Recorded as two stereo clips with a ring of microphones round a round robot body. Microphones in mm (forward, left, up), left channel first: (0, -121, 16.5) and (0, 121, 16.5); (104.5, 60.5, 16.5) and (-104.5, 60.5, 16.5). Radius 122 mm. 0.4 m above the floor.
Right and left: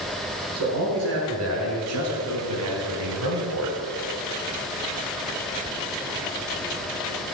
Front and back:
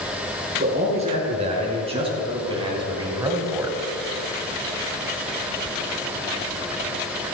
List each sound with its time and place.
0.6 s a man speaking: 120° left, 7.5 m; by 3.8 s 100° left, 3 m